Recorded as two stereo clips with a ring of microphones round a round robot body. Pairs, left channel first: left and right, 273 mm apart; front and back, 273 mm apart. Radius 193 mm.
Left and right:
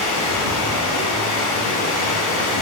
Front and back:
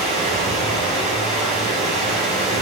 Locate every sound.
0.0 s running water: 105° left, 2 m